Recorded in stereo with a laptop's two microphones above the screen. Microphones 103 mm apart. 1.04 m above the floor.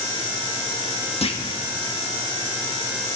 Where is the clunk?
70° left (ahead or behind), 1.3 m.